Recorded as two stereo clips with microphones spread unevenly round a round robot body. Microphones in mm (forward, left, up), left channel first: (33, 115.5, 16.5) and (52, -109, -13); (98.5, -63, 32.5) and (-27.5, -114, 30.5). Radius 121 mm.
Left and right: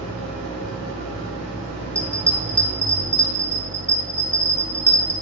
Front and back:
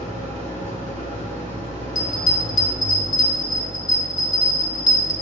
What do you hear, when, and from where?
0.0 s an engine running: 145° right, 1.8 m
1.9 s a bell: 15° left, 1.0 m